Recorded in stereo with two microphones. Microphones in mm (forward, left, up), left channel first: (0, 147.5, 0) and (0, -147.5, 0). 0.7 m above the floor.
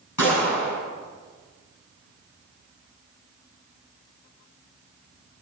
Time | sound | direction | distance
0.2 | a gunshot | 85° left | 9 m